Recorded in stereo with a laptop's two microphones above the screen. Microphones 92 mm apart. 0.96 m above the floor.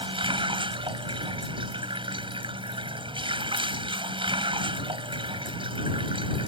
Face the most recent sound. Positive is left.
turn(degrees=-70)  # may be behind; listen again after turning